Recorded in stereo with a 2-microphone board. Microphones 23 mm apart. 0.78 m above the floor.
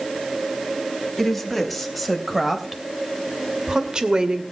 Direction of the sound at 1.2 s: Centre (ahead or behind).